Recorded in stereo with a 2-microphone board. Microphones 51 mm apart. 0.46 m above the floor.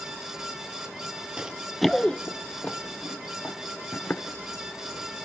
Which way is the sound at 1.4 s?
20° right (ahead or behind).